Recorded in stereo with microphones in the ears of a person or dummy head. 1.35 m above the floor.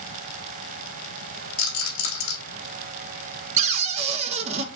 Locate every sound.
1.6 s a rattle: 60° left (ahead or behind), 1.3 m
3.6 s a cupboard door: 40° right (ahead or behind), 0.6 m